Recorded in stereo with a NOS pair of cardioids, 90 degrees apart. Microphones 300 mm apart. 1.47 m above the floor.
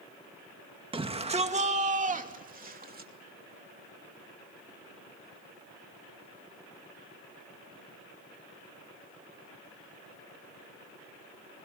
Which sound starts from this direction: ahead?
A shout, at 0.9 s.